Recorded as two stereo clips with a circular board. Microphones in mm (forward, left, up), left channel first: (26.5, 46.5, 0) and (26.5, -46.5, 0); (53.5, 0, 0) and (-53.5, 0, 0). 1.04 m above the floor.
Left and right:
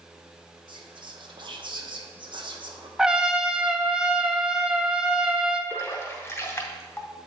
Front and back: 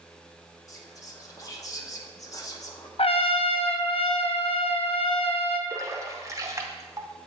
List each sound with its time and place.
0.7 s whispering: 60° right, 0.9 m
3.0 s a trumpet: 10° right, 0.5 m
5.7 s a splash: 135° left, 0.7 m